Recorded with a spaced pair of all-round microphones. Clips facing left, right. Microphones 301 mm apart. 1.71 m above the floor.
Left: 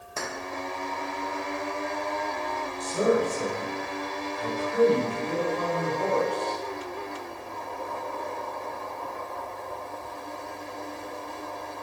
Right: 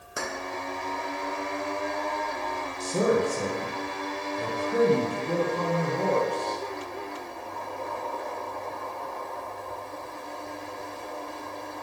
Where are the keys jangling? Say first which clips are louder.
Right 1 dB; 15° right (ahead or behind), 1.0 m.